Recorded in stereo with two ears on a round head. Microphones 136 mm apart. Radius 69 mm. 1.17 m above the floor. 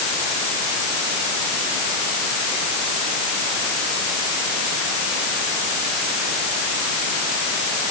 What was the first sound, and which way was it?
Only background noise.